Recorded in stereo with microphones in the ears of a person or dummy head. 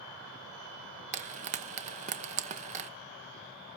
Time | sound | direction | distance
1.1 | frying | 40° right (ahead or behind) | 1.0 m